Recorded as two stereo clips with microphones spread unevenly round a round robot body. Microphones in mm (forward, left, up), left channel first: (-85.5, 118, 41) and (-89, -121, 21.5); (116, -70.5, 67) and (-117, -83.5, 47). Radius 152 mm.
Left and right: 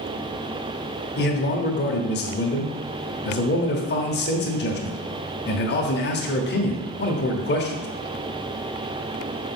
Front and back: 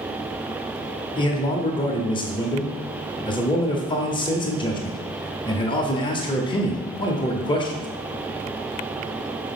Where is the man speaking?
70° left, 1.1 m.